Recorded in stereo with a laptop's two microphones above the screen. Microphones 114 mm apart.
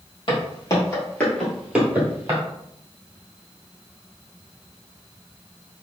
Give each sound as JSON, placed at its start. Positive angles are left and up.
{"t": 0.3, "sound": "footsteps", "side_deg": 45, "distance_m": 1.8}